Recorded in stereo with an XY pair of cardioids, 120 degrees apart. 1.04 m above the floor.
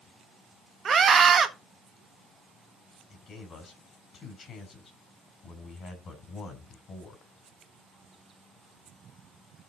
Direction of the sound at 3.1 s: 45° left.